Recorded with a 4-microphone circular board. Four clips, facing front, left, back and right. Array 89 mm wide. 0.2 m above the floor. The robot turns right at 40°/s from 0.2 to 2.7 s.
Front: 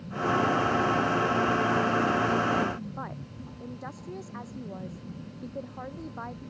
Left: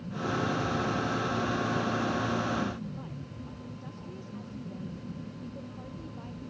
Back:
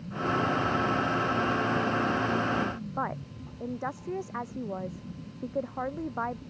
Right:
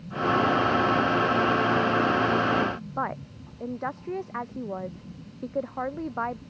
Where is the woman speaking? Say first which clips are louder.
Right 11 dB, back 6 dB; 115° right.